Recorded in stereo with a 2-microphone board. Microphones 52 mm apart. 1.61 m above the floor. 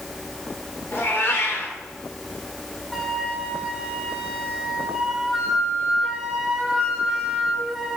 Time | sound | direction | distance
0.9 | a cat meowing | 55° left (ahead or behind) | 3 m
2.9 | a flute | 5° right (ahead or behind) | 2 m